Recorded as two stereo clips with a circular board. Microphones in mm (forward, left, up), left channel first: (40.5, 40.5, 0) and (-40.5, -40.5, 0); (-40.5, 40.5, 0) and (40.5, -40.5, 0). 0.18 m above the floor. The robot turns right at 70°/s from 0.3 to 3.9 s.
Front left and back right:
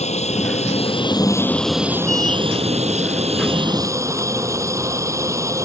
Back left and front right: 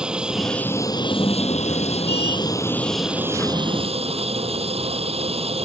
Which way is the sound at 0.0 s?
35° left.